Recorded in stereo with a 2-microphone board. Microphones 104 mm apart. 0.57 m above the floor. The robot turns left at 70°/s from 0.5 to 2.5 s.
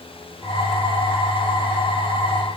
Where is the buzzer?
No buzzer in this recording.